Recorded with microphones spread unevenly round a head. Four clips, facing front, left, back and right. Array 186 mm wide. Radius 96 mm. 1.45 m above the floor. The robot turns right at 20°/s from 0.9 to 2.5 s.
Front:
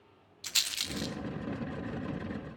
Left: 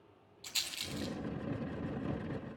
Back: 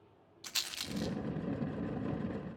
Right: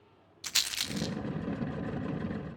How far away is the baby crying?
I don't hear a baby crying.